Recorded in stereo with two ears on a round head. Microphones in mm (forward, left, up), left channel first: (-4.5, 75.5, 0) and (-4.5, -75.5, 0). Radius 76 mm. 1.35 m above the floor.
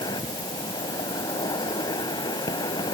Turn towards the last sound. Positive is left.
turn(degrees=25)  # may be behind; listen again after turning